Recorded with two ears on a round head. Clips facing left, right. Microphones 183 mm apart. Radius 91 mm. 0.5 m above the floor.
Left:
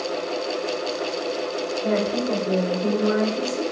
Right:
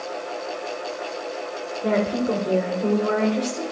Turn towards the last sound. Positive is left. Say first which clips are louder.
# right 2 dB
turn(degrees=-55)  # may be behind; listen again after turning